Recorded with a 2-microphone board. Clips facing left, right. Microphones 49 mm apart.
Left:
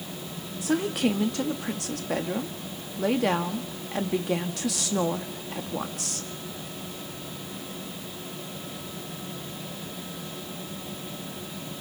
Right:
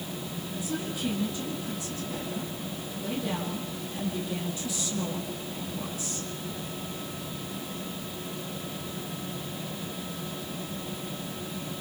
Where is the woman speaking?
80° left, 2.5 m.